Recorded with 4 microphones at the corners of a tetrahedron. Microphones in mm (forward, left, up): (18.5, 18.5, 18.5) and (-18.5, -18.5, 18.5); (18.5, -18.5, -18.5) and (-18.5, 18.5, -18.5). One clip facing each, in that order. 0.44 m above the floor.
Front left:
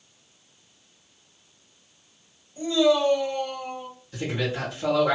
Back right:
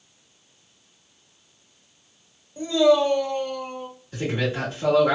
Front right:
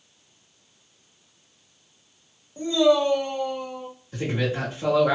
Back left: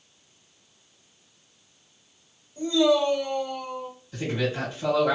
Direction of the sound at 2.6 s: 85° right.